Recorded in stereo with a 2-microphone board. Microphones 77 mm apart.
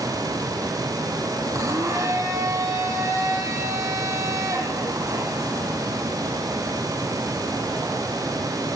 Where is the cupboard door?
No cupboard door in this recording.